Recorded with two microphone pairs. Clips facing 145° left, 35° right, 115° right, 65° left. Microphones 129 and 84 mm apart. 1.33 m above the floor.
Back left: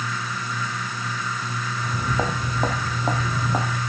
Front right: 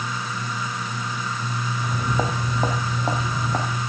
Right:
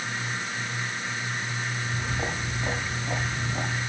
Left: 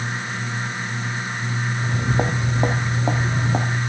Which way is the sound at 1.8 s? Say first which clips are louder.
Even, left 10 dB; 45° left.